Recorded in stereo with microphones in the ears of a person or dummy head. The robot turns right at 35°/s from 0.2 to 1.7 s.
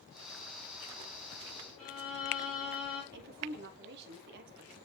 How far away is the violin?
About 4 m.